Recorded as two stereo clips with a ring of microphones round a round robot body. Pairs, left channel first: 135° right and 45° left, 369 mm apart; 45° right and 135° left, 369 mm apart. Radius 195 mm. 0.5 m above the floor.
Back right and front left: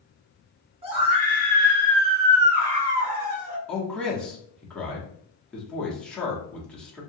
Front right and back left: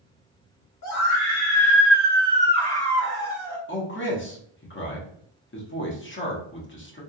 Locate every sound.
0.8 s a scream: 25° right, 1.9 m; by 3.6 s 60° left, 1.7 m
3.7 s a man speaking: 50° right, 1.0 m